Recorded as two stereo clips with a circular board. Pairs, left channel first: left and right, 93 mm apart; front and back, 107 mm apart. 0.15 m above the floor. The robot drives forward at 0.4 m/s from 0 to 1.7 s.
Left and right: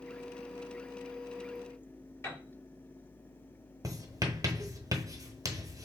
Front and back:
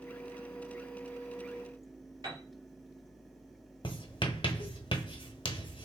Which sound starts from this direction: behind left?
A piano, at 2.2 s.